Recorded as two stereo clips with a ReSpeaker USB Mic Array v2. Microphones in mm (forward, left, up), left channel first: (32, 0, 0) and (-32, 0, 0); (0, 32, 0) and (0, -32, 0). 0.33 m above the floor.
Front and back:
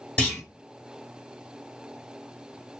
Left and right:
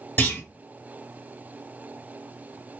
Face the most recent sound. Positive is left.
turn(degrees=50)